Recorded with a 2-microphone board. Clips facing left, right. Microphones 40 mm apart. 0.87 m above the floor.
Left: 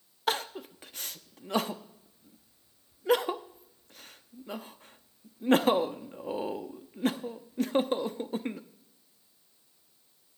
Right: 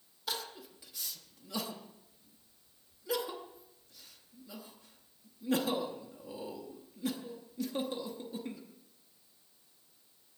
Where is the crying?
50° left (ahead or behind), 0.8 m.